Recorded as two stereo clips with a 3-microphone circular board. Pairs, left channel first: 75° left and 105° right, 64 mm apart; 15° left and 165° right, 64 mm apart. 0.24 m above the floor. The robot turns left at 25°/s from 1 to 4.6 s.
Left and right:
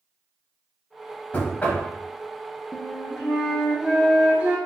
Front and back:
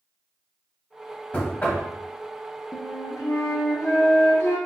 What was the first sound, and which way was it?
Knocking, 45° left.